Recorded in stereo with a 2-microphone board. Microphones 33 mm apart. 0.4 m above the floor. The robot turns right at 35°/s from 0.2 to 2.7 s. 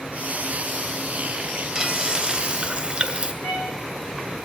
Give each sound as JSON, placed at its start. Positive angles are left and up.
{"t": 1.8, "sound": "frying", "azimuth_deg": -150, "distance_m": 1.3}
{"t": 3.4, "sound": "a violin", "side_deg": 60, "distance_m": 6.5}